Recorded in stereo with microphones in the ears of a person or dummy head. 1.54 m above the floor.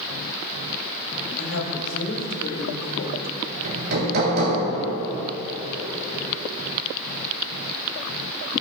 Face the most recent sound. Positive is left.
turn(degrees=-55)  # may be behind; listen again after turning